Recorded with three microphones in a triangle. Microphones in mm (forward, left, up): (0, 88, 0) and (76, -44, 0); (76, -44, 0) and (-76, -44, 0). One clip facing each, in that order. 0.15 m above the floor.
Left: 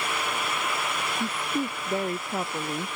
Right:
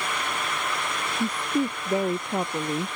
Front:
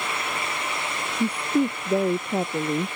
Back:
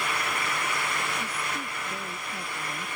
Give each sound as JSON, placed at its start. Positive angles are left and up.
{"t": 1.2, "sound": "a woman speaking", "azimuth_deg": 15}